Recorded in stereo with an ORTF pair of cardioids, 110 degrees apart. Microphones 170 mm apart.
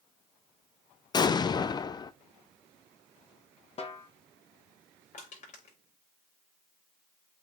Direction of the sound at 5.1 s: 45° left.